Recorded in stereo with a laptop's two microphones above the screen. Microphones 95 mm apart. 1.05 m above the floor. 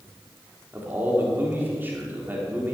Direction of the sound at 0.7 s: 20° right (ahead or behind).